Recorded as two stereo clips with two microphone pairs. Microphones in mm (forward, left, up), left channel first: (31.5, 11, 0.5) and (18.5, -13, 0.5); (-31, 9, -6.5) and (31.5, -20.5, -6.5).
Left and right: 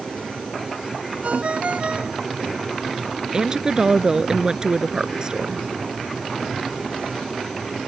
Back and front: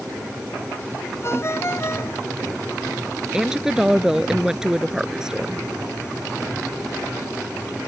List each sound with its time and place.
1.2 s a ringtone: 155° right
3.3 s a woman speaking: 95° right